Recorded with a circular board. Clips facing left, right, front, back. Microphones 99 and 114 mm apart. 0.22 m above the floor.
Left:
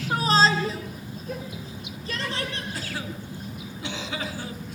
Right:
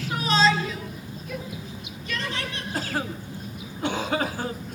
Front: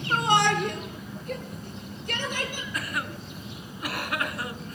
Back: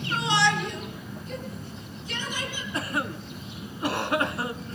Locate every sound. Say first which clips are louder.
0.1 s a shout: left 1 dB, front 2 dB; 40° left, 3.5 m; by 2.6 s 35° left, 7.5 m
2.7 s a cough: right 5 dB, back 5 dB; 120° right, 2 m